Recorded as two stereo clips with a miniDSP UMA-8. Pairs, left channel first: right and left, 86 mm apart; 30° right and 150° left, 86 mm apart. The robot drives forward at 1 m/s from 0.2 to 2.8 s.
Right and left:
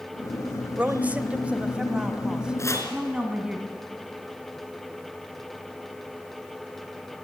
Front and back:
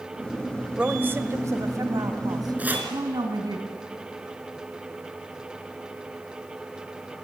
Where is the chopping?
140° right, 3 m.